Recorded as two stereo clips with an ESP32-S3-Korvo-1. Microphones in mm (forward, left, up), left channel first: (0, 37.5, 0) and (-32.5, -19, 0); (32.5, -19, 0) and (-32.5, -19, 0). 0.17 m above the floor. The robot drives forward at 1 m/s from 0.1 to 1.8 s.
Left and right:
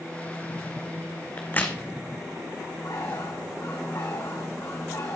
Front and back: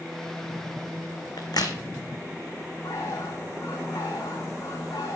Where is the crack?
Straight ahead, 1.8 m.